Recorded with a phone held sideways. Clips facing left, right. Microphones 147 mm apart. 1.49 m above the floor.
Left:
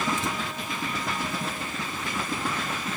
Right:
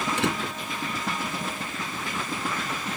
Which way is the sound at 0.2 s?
75° right (ahead or behind).